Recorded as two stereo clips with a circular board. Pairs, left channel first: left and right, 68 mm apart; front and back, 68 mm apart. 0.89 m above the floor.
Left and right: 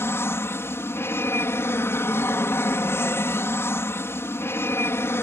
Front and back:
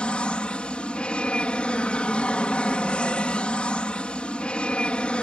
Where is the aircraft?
65° left.